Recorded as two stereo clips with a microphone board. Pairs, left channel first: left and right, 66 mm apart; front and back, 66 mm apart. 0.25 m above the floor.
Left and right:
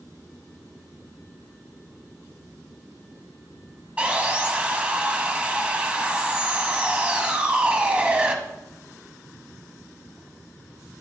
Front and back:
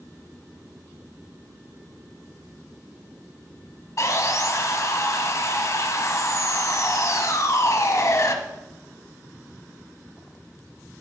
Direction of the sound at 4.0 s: 20° right.